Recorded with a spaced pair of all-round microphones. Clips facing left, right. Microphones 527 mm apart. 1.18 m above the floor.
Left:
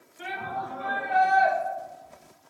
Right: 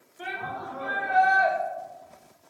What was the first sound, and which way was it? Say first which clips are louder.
A shout: left 1 dB; 45° left (ahead or behind).